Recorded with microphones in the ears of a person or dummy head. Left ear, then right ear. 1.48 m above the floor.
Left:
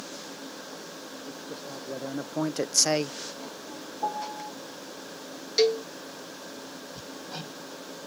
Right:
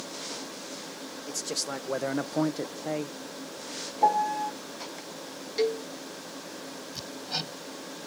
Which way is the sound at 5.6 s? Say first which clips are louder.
Left 5 dB; 40° left (ahead or behind).